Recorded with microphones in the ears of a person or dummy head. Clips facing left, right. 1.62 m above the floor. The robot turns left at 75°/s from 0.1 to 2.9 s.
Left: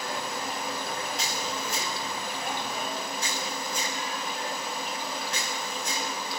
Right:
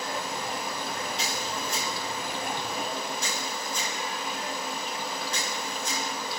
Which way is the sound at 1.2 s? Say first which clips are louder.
Even; 45° left (ahead or behind).